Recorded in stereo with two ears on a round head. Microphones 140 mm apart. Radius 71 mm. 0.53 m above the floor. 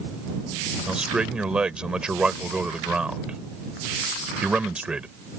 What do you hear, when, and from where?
0.9 s a man speaking: 5° right (ahead or behind)